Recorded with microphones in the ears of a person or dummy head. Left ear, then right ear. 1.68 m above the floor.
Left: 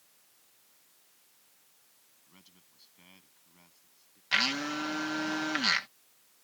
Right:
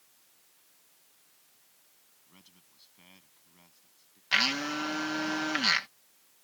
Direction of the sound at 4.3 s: 5° right (ahead or behind).